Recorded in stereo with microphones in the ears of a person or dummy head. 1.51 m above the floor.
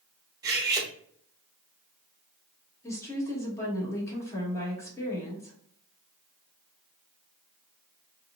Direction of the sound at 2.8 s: 10° left (ahead or behind).